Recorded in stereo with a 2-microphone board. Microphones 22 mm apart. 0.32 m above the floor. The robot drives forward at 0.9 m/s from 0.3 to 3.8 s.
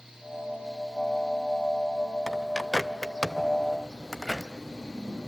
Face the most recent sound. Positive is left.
turn(degrees=10)  # may be behind; listen again after turning